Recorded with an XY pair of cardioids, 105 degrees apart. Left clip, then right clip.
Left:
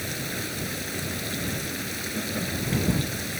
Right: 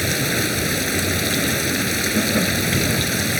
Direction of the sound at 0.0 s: 60° right.